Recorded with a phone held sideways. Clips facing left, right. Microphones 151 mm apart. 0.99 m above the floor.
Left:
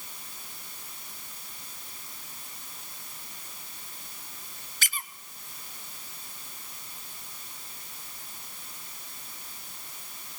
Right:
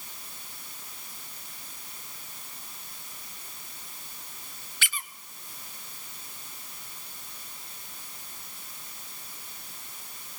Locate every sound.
4.8 s a squeak: 40° left (ahead or behind), 0.7 m